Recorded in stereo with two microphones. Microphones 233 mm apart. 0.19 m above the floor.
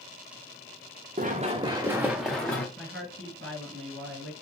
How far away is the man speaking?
About 2.5 m.